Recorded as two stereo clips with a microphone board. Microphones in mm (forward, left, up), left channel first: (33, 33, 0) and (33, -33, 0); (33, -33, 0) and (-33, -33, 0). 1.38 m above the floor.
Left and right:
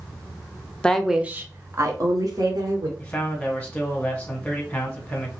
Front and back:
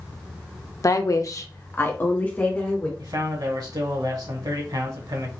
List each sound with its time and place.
0.8 s a woman speaking: 15° left, 0.6 m; by 2.9 s 70° right, 1.7 m
3.0 s a man speaking: 165° left, 1.7 m